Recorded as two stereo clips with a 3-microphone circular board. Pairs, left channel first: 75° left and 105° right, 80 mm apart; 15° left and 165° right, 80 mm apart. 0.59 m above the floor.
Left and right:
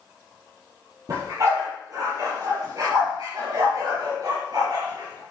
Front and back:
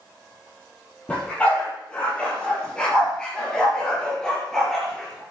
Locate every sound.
1.1 s a dog barking: 60° right, 6 m; by 5.2 s 75° right, 3.5 m